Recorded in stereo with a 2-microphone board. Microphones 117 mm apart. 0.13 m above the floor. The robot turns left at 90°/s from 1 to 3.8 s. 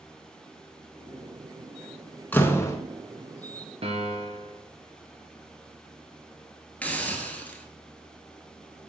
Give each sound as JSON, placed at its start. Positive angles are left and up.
{"t": 2.3, "sound": "a door slam", "side_deg": 15, "distance_m": 0.9}
{"t": 3.8, "sound": "a piano", "side_deg": -60, "distance_m": 1.1}
{"t": 6.8, "sound": "a hiss", "side_deg": 10, "distance_m": 1.1}